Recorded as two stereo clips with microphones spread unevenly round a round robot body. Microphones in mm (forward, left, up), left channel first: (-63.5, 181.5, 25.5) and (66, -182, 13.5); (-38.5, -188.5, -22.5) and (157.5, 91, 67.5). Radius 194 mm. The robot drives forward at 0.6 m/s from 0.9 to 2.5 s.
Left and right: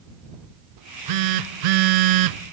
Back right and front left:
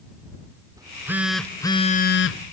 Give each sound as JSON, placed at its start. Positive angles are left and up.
{"t": 0.8, "sound": "a phone buzzing", "azimuth_deg": -30, "distance_m": 1.0}